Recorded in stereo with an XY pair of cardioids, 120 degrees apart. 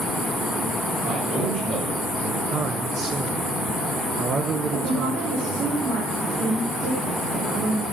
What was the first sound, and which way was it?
A man speaking, 55° right.